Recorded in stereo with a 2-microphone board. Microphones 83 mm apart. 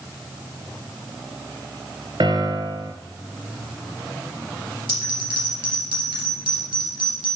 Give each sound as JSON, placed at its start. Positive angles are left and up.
{"t": 2.2, "sound": "a piano", "side_deg": -65, "distance_m": 0.9}
{"t": 4.9, "sound": "a bell", "side_deg": -75, "distance_m": 3.0}